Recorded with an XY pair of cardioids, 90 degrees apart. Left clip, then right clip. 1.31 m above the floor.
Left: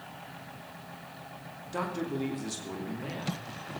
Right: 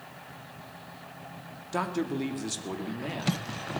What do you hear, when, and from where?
1.7 s a man speaking: 45° right, 2.5 m